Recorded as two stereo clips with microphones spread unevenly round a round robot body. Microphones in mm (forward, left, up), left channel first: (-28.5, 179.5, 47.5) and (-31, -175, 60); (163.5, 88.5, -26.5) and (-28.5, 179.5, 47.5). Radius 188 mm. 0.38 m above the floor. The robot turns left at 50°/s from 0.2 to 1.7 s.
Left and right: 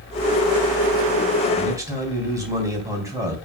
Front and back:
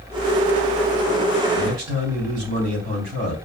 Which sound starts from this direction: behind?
A man speaking, at 1.5 s.